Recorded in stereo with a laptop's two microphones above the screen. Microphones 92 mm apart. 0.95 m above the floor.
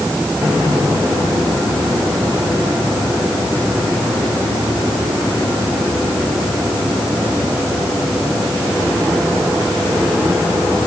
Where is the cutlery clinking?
I don't hear cutlery clinking.